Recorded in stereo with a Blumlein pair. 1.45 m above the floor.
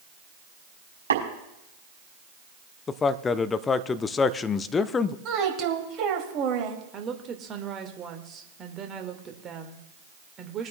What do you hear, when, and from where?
1.1 s tapping: 70° right, 5 m
2.9 s a man speaking: 20° left, 0.5 m
5.2 s a woman speaking: 30° right, 2.5 m
6.9 s a woman speaking: 25° right, 1.7 m